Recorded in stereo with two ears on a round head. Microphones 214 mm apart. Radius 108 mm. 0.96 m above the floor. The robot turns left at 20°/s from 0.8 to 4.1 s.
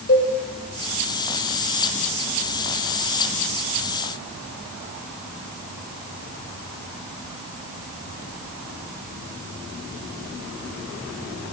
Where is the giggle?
I don't hear a giggle.